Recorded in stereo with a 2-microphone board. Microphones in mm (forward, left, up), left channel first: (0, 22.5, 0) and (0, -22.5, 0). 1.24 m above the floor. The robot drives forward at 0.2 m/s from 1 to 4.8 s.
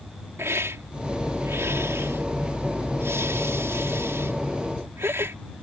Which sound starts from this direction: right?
A hiss, at 0.4 s.